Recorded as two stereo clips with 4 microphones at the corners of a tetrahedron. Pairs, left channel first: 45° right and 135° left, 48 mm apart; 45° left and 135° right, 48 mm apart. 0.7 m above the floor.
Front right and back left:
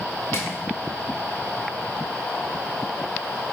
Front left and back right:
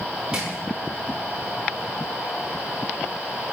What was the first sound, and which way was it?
Crushing, 60° right.